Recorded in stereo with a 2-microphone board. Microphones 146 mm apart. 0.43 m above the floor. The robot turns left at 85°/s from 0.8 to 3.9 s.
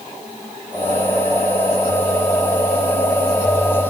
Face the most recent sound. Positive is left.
No sound to turn to.